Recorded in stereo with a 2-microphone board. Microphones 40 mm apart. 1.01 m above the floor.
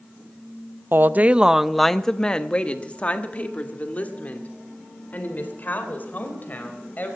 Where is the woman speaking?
60° right (ahead or behind), 0.5 m; by 7.2 s 45° left (ahead or behind), 4.5 m.